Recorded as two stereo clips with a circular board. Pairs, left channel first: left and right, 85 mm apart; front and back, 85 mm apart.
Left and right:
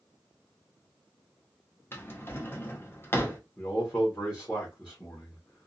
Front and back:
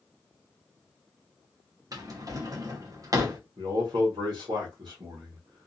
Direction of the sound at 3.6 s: 175° left.